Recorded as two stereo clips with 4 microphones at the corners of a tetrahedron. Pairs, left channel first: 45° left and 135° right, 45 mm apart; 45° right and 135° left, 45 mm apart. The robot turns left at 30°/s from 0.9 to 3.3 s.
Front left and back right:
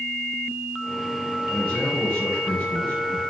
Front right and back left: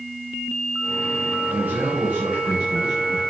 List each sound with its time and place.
1.5 s a man speaking: 95° left, 3 m; by 3.2 s 45° left, 3 m